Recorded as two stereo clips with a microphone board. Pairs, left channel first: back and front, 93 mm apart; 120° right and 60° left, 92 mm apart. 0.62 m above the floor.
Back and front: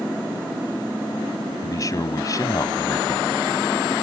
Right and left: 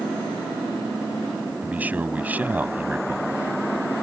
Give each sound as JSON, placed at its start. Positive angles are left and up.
{"t": 1.6, "sound": "a man speaking", "azimuth_deg": 130}